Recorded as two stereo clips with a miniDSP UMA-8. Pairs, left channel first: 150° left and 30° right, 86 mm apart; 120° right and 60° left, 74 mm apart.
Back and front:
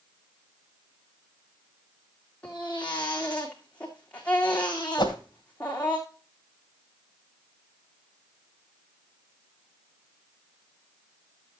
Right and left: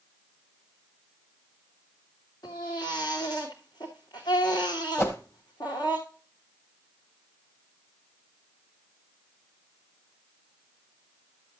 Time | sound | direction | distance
2.4 | a baby crying | 135° right | 3 m
5.0 | a whoosh | straight behind | 1.8 m